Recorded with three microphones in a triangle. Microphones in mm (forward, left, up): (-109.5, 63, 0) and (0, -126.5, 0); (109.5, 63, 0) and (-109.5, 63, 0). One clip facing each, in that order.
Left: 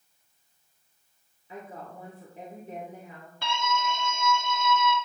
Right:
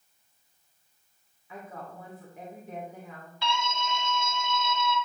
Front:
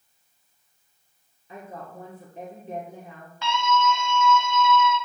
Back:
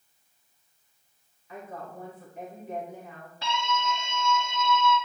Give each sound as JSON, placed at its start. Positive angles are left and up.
{"t": 1.5, "sound": "a woman speaking", "azimuth_deg": 60, "distance_m": 2.0}
{"t": 3.4, "sound": "a scream", "azimuth_deg": 135, "distance_m": 1.3}